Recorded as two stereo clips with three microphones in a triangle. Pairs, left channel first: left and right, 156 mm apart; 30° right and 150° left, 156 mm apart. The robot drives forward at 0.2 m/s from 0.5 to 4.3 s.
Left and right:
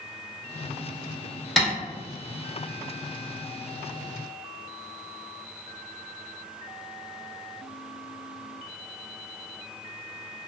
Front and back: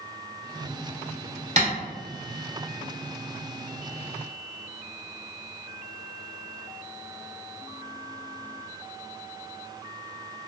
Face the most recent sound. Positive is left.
turn(degrees=180)